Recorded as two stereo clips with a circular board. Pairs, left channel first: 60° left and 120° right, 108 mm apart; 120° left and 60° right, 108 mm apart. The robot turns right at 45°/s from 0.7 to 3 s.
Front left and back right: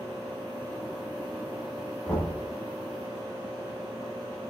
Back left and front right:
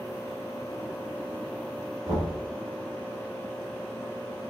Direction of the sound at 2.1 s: 20° right.